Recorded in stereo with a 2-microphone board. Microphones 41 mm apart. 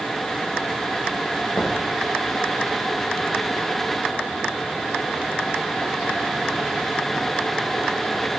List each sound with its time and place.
1.5 s knocking: 65° left (ahead or behind), 1.6 m